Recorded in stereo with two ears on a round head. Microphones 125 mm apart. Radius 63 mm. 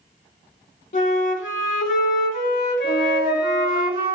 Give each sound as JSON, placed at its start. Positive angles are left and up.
{"t": 0.9, "sound": "a flute", "side_deg": 60, "distance_m": 0.7}
{"t": 2.8, "sound": "a flute", "side_deg": -35, "distance_m": 0.9}